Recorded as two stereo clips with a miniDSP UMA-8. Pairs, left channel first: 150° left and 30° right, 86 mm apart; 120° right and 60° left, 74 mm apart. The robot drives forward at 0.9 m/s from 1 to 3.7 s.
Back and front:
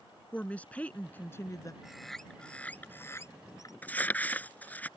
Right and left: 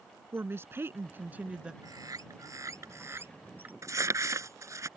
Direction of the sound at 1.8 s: 55° left.